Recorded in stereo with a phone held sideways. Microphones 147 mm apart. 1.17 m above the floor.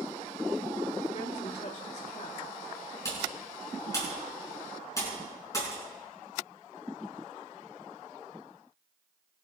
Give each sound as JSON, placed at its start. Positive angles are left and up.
{"t": 1.1, "sound": "a woman speaking", "side_deg": 55, "distance_m": 3.5}
{"t": 3.0, "sound": "typing on a keyboard", "side_deg": 25, "distance_m": 6.5}